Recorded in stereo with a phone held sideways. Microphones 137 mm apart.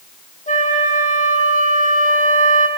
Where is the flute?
70° left (ahead or behind), 1.6 m.